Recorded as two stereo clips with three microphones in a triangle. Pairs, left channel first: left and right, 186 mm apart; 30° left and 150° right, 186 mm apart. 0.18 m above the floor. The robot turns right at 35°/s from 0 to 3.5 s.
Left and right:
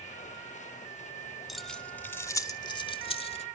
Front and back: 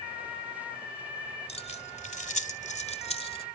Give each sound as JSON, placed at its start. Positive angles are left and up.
{"t": 1.5, "sound": "keys jangling", "azimuth_deg": 0, "distance_m": 0.9}